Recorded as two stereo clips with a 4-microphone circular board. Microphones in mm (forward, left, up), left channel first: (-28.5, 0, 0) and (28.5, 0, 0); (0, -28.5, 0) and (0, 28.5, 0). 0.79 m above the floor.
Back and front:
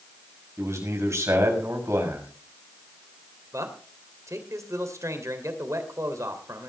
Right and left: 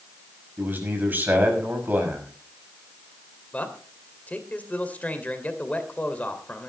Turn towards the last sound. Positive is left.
turn(degrees=-25)